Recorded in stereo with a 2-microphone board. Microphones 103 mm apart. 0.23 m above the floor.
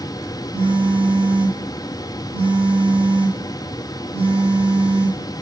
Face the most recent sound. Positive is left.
turn(degrees=-75)  # may be behind; listen again after turning